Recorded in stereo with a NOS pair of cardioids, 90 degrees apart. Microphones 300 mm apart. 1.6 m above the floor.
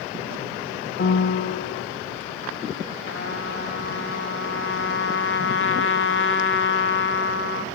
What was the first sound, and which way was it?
A piano, 40° left.